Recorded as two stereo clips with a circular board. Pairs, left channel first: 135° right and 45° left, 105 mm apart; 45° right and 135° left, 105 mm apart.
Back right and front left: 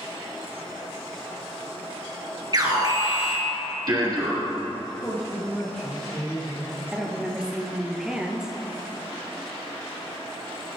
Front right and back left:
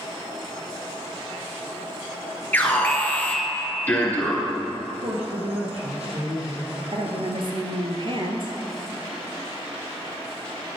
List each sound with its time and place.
2.5 s an alarm: 20° left, 2.5 m
4.8 s a woman speaking: 145° left, 3 m
6.9 s a woman speaking: 125° left, 1.9 m